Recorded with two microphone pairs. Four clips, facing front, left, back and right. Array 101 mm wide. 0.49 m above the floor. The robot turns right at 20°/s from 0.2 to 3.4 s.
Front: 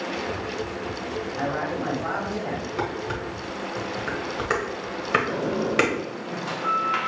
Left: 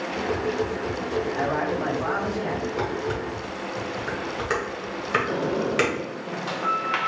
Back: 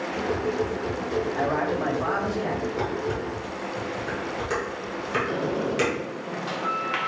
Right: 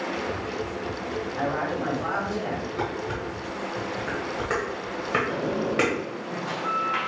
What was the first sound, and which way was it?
A man speaking, 170° left.